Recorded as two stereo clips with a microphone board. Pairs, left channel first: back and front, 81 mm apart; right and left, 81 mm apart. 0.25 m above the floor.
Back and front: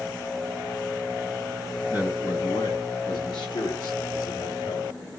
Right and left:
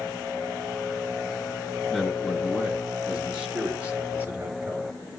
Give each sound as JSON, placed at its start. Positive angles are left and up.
{"t": 1.9, "sound": "a man speaking", "azimuth_deg": -170, "distance_m": 2.0}